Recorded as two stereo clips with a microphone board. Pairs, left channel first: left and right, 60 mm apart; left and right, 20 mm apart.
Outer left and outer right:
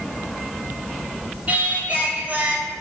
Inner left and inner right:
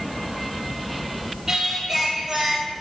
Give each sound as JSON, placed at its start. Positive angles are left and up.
{"t": 1.5, "sound": "singing", "side_deg": -25, "distance_m": 1.9}